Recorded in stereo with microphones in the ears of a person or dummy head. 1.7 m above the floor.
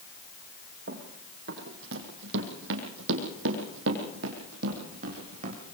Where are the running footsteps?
55° right (ahead or behind), 5 m; by 5.6 s 40° right (ahead or behind), 4 m.